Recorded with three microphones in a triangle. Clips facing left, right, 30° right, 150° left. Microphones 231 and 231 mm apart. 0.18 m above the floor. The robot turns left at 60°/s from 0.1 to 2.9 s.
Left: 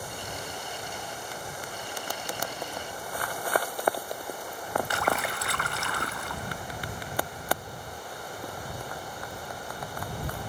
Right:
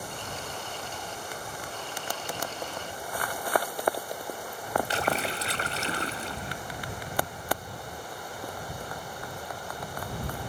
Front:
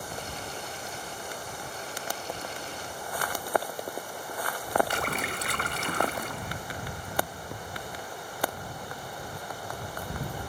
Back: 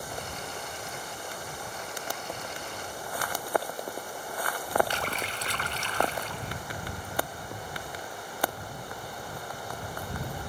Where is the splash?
35° right.